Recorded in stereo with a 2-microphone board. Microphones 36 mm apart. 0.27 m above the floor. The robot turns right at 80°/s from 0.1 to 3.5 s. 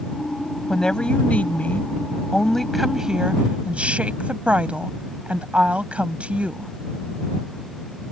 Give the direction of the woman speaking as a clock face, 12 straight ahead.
11 o'clock.